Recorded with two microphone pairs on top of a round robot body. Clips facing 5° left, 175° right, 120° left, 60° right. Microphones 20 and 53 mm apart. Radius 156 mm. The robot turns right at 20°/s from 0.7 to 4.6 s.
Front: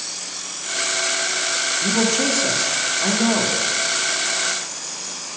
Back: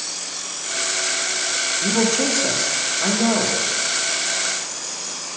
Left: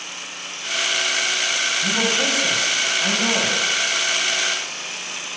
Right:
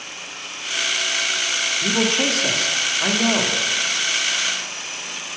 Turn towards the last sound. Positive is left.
turn(degrees=-20)